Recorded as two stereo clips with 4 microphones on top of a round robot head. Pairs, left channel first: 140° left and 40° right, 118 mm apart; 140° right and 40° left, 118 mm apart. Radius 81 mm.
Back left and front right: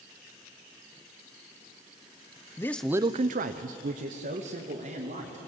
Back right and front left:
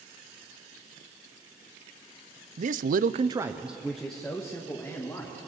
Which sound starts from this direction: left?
A man speaking, at 2.6 s.